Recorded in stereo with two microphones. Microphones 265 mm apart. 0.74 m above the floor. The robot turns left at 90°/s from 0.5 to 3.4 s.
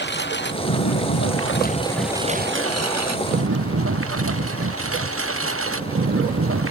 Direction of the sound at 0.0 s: 40° left (ahead or behind).